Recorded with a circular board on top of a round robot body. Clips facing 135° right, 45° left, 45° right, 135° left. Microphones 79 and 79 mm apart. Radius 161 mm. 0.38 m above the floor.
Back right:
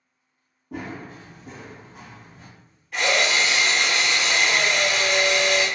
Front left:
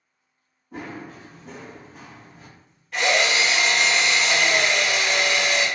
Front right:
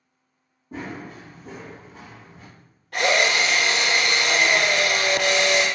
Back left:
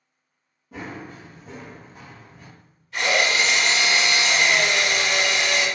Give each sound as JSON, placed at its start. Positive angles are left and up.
{"t": 0.7, "sound": "running footsteps", "azimuth_deg": -110, "distance_m": 0.6}
{"t": 2.9, "sound": "a drill", "azimuth_deg": -45, "distance_m": 1.3}